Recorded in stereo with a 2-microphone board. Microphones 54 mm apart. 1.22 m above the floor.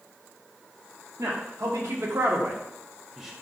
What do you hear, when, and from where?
1.2 s a man speaking: 75° right (ahead or behind), 1.0 m; by 3.3 s 5° right (ahead or behind), 0.6 m